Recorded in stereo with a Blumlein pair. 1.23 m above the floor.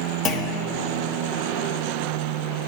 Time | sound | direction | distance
0.2 | a clunk | 25° left | 0.9 m